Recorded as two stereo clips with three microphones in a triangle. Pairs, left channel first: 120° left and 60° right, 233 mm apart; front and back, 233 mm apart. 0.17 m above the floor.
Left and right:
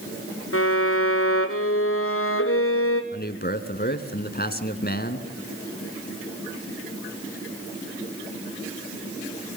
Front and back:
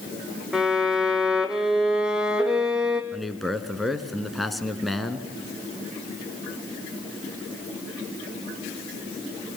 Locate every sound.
0.5 s a violin: 95° left, 2 m
3.1 s a man speaking: 90° left, 2 m